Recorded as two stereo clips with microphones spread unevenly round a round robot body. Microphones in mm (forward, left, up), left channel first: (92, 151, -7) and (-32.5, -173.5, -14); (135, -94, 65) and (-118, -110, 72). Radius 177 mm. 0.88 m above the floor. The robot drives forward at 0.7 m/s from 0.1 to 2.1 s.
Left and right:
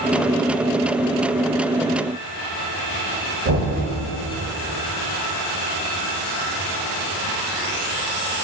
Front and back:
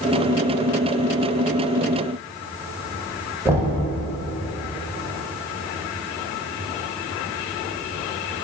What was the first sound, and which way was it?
Knocking, 100° right.